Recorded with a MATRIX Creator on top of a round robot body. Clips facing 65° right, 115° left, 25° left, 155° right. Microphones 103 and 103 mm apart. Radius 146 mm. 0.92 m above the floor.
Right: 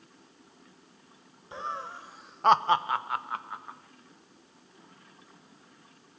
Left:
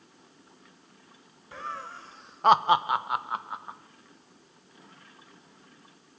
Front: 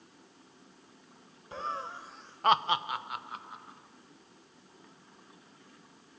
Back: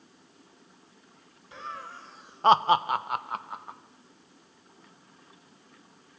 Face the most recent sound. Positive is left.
turn(degrees=180)